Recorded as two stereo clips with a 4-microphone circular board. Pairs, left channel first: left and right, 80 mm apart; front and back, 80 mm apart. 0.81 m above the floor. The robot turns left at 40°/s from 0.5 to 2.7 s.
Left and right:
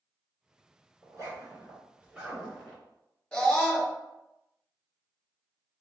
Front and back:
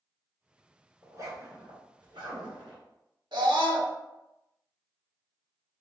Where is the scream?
165° left, 1.4 m.